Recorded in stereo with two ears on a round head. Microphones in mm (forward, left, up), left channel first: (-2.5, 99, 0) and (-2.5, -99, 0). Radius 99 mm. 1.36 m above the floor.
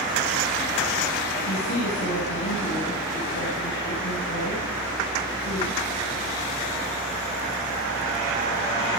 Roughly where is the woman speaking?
Left.